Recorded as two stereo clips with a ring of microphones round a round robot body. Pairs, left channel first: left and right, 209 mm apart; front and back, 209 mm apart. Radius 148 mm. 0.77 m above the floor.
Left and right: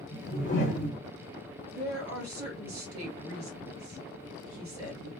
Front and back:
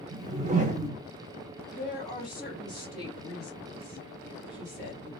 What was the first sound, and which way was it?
A whoosh, 140° left.